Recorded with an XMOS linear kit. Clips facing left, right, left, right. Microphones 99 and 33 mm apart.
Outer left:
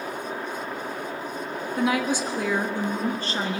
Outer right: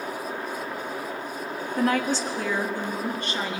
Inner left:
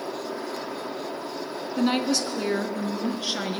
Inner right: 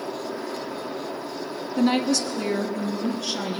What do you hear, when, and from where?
1.8 s a woman speaking: 5° left (ahead or behind), 1.0 m; by 3.6 s 40° left (ahead or behind), 1.6 m